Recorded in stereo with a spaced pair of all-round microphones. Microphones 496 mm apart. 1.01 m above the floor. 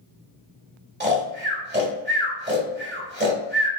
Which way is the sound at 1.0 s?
20° right (ahead or behind).